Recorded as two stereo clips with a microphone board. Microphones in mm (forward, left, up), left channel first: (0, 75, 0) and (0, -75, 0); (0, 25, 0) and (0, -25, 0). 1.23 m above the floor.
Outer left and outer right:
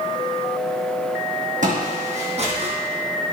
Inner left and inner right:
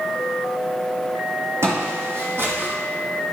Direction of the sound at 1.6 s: 55° right (ahead or behind).